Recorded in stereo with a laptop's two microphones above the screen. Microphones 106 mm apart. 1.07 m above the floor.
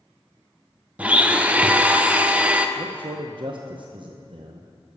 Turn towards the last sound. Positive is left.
turn(degrees=-55)  # may be behind; listen again after turning